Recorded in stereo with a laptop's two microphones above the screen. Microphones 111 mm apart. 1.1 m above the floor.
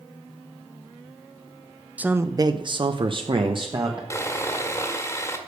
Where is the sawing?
25° left (ahead or behind), 1.7 m.